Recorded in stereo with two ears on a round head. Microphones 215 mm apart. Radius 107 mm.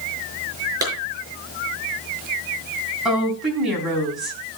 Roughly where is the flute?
I don't hear a flute.